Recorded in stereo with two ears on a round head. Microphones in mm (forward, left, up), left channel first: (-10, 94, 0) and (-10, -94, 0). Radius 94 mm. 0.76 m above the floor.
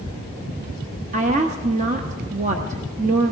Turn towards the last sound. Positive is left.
turn(degrees=-35)  # may be behind; listen again after turning